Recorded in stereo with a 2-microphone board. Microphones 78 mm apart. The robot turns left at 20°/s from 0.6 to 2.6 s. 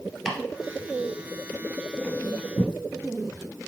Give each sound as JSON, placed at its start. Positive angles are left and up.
{"t": 0.2, "sound": "chopping", "side_deg": 5, "distance_m": 1.7}